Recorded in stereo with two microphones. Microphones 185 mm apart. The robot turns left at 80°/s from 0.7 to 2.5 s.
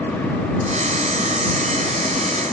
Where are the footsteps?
No footsteps in this recording.